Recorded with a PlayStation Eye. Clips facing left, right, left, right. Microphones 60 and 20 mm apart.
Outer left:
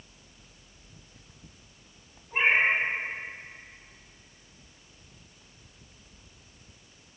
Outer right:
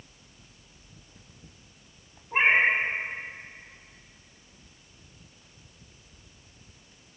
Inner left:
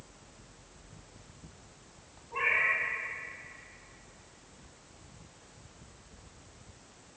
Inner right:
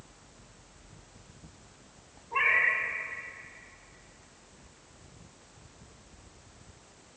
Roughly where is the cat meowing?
Right.